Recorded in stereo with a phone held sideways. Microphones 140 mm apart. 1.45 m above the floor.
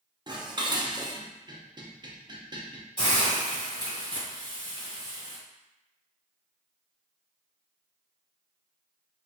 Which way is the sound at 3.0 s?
35° left (ahead or behind).